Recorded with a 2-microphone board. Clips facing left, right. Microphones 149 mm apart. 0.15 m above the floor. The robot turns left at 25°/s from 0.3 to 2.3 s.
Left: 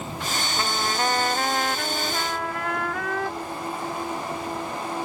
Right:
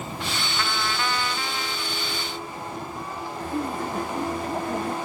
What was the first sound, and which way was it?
A trumpet, 155° left.